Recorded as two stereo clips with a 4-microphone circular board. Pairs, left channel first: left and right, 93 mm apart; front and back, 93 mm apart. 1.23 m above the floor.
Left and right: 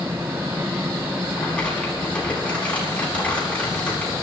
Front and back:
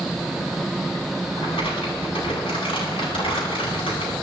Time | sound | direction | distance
1.4 | crumpling | 15° left | 10 m